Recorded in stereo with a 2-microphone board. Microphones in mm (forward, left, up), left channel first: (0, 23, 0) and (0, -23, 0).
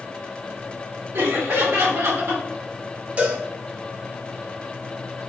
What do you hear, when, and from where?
1.1 s laughter: 75° right (ahead or behind), 1.8 m; by 2.4 s 65° right (ahead or behind), 2.5 m
3.2 s a cowbell: 30° right (ahead or behind), 1.0 m